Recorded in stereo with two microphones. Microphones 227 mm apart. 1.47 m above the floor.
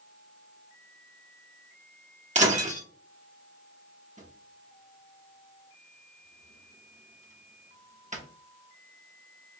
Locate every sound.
2.4 s breaking glass: 30° right (ahead or behind), 1.2 m
4.2 s a drawer: 35° right (ahead or behind), 1.0 m